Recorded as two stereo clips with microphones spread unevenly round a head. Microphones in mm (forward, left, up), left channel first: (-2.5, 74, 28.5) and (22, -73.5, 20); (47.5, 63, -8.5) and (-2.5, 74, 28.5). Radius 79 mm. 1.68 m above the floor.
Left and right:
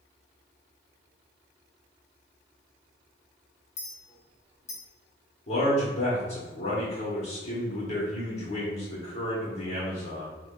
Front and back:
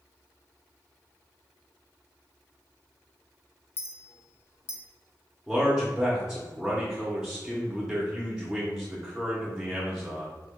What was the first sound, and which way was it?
A clink, 55° left.